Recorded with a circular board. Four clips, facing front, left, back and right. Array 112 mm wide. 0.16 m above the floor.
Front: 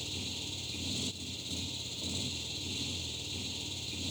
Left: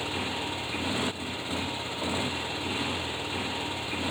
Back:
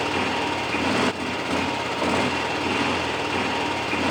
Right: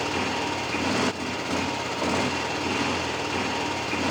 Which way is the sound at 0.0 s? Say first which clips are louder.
Right 6 dB, back 21 dB; 160° right.